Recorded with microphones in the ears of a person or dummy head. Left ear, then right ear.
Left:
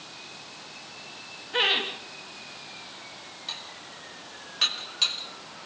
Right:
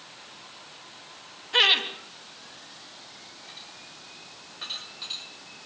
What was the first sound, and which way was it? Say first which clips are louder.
Laughter: right 4 dB; 35° right (ahead or behind).